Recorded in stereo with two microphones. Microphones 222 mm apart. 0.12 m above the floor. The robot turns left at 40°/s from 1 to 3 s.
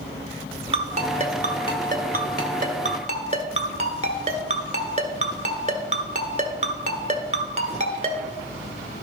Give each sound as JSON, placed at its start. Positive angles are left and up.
{"t": 0.7, "sound": "a ringtone", "side_deg": -30, "distance_m": 1.1}